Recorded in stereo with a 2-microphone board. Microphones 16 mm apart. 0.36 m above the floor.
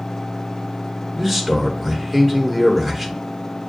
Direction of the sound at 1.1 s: 5° right (ahead or behind).